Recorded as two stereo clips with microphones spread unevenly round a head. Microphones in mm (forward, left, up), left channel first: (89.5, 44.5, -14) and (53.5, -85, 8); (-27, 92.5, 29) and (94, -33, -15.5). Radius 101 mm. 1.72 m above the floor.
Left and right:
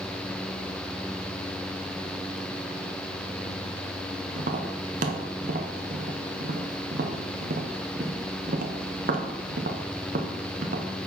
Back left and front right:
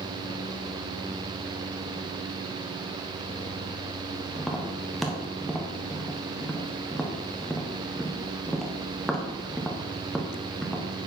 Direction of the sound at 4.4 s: 140° right.